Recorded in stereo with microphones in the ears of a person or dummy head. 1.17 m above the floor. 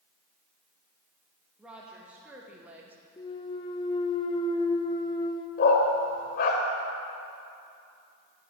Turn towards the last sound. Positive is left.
turn(degrees=50)  # may be behind; listen again after turning